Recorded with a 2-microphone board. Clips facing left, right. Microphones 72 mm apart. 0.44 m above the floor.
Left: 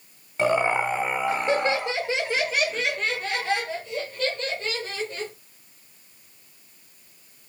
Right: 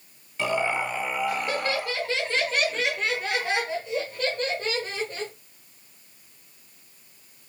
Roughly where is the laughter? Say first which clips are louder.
Left 4 dB; left.